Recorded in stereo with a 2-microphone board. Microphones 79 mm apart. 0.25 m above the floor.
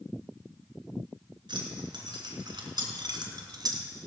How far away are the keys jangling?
About 2.5 m.